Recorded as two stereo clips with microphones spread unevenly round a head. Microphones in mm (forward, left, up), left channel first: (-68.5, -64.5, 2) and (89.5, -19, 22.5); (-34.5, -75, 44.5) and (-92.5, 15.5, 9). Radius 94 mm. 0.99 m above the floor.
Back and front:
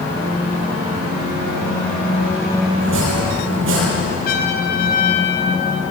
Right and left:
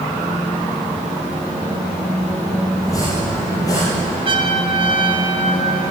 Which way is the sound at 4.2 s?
155° left.